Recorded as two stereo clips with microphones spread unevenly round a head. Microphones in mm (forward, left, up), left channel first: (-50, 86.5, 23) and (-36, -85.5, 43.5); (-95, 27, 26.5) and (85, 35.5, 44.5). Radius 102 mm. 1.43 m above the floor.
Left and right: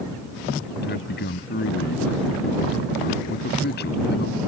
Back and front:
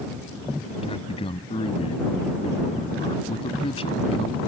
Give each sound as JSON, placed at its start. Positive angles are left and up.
{"t": 0.8, "sound": "a man speaking", "azimuth_deg": 120}